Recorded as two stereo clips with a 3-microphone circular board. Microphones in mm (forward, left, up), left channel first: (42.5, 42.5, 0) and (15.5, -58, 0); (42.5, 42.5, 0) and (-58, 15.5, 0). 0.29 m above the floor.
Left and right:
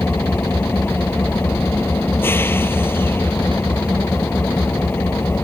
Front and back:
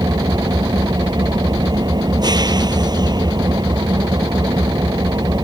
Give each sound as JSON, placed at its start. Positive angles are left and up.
{"t": 0.0, "sound": "an engine running", "azimuth_deg": 145}